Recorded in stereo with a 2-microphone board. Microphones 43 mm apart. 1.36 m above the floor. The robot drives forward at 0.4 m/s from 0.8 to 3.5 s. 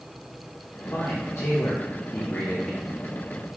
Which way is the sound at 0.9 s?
70° left (ahead or behind).